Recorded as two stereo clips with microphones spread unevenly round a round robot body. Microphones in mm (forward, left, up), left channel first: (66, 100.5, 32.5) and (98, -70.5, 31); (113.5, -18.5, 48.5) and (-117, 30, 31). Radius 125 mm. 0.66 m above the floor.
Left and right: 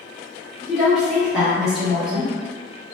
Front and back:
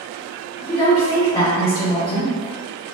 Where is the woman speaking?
5° left, 1.2 m.